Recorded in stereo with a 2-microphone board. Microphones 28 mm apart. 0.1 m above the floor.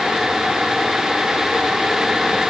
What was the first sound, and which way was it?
Only background noise.